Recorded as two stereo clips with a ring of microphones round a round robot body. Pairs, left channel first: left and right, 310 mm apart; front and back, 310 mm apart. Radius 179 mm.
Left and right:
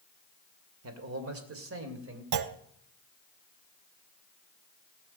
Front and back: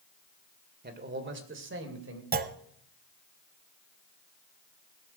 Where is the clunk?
120° right, 0.7 m.